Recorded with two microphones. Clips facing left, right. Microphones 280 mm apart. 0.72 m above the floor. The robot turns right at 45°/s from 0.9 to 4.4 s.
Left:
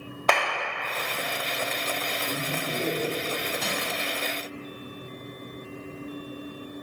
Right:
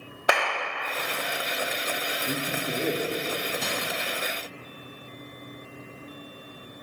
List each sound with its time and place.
0.3 s a clap: 10° right (ahead or behind), 1.3 m
2.3 s a man speaking: 20° right (ahead or behind), 1.0 m; by 3.5 s 25° right (ahead or behind), 1.0 m
3.6 s crushing: centre (ahead or behind), 1.7 m; by 3.8 s 5° left (ahead or behind), 1.7 m